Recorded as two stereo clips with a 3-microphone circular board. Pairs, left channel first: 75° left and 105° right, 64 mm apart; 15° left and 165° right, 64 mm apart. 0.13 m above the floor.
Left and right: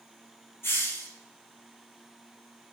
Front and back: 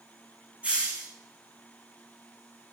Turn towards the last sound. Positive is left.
turn(degrees=125)